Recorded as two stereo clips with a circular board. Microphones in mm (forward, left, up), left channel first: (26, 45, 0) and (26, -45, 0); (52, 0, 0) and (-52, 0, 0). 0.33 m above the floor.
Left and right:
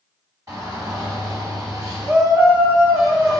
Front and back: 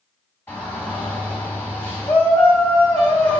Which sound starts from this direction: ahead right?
A shout, at 0.5 s.